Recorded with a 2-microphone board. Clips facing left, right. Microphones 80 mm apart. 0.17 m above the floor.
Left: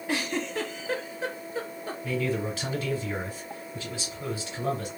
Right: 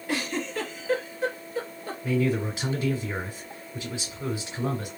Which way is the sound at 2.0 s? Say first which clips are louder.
Right 4 dB; 20° right (ahead or behind).